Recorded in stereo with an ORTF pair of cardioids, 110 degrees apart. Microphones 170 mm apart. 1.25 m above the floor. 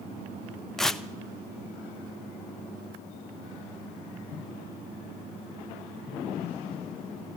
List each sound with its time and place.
0.8 s tearing paper: straight ahead, 0.5 m